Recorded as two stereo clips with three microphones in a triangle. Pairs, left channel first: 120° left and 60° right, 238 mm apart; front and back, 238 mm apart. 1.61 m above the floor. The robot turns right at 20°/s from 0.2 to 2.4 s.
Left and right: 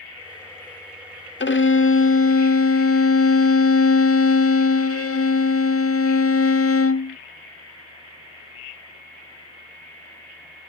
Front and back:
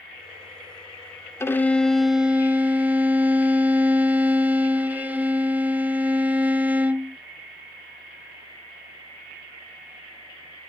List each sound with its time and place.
1.4 s a violin: 75° left, 0.6 m; by 7.2 s 95° left, 0.6 m